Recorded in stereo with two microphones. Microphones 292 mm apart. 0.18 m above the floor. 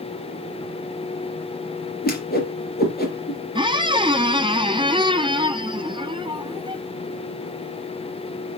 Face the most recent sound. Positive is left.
turn(degrees=-15)  # may be behind; listen again after turning